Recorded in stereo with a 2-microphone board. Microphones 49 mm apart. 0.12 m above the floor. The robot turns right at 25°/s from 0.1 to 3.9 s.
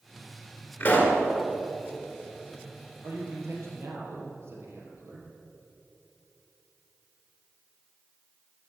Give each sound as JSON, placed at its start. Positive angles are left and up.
{"t": 0.8, "sound": "a pop", "side_deg": 30, "distance_m": 1.9}
{"t": 3.0, "sound": "a man speaking", "side_deg": -65, "distance_m": 3.0}